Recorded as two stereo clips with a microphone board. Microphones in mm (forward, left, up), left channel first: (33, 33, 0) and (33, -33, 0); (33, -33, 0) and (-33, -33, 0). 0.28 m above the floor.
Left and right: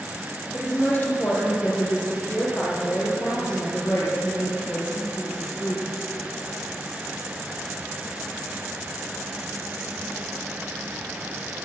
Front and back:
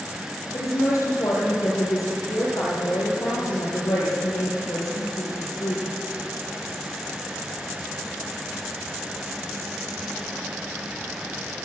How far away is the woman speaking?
About 7.5 m.